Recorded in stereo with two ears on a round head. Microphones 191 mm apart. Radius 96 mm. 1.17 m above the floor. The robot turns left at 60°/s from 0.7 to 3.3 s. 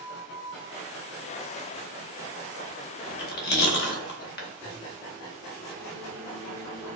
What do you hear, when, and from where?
3.1 s chewing: 55° left (ahead or behind), 0.8 m; by 4.5 s 50° left (ahead or behind), 0.8 m
4.6 s a microwave: 30° right (ahead or behind), 1.5 m